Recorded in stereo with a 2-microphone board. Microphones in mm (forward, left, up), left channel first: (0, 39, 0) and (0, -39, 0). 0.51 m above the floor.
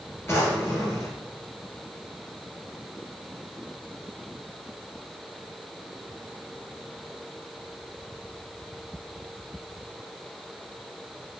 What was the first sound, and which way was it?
A drawer, 35° left (ahead or behind).